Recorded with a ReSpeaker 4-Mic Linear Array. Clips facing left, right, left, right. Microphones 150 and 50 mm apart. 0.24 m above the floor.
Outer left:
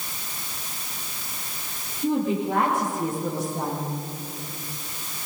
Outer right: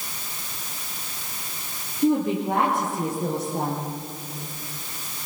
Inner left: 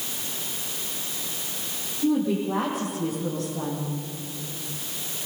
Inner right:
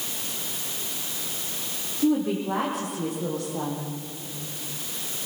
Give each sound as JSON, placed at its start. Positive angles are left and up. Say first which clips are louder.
{"t": 2.0, "sound": "a woman speaking", "louder": "outer right 2 dB, even", "side_deg": -65, "distance_m": 9.0}